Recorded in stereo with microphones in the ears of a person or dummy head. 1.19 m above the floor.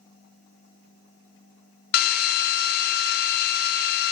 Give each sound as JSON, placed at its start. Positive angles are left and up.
{"t": 1.9, "sound": "a drill", "side_deg": 55, "distance_m": 0.7}